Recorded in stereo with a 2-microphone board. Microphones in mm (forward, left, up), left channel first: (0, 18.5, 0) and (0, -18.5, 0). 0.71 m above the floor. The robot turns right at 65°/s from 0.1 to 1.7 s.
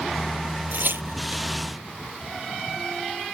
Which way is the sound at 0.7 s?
50° right (ahead or behind).